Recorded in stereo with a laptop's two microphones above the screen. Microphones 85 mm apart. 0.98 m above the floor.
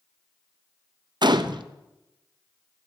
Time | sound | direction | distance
1.2 | a gunshot | 60° right (ahead or behind) | 0.6 m